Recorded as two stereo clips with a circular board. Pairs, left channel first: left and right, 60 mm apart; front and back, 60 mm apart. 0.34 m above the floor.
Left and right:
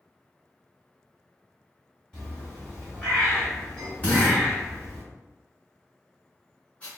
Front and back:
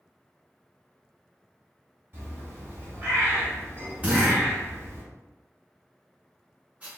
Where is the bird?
155° left, 1.7 m.